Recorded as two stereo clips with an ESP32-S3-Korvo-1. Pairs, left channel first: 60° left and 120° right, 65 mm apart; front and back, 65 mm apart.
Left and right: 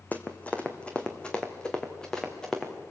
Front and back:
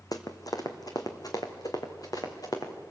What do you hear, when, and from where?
0.1 s running footsteps: 5° right, 1.7 m; by 2.7 s 20° right, 3 m